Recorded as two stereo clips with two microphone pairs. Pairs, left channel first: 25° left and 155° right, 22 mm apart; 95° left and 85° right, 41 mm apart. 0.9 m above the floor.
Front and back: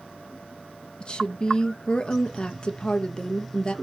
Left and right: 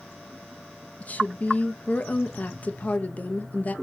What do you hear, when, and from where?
1.0 s a woman speaking: 60° left, 0.5 m